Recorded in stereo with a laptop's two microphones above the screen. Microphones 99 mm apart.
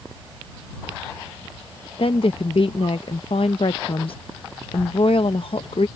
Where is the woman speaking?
60° left (ahead or behind).